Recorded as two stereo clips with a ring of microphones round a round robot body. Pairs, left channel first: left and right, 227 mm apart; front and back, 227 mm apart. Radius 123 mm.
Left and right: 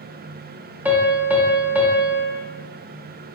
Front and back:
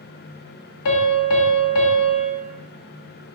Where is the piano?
5° right, 0.5 m.